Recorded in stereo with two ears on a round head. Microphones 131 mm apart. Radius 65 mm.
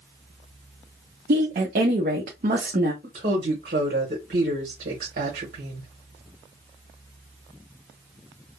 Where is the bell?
No bell in this recording.